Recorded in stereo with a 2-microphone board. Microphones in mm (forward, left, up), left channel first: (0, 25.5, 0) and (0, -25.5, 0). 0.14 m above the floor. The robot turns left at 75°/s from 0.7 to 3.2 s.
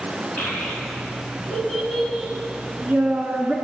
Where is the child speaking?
40° left (ahead or behind), 1.2 m; by 3.5 s 40° right (ahead or behind), 1.2 m.